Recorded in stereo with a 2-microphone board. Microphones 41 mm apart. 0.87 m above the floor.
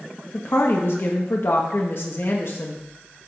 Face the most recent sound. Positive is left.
turn(degrees=60)  # may be behind; listen again after turning